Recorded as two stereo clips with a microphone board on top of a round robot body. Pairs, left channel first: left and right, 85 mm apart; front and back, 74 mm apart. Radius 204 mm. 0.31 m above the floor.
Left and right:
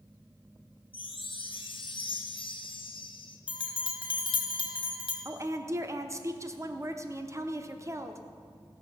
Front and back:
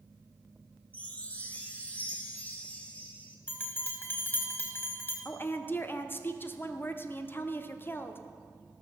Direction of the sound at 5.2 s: 50° right.